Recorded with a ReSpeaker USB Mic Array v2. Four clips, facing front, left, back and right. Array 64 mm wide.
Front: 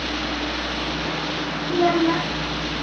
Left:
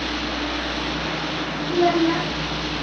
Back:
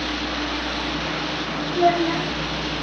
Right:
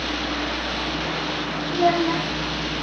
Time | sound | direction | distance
1.7 | a child speaking | 25° left | 0.8 m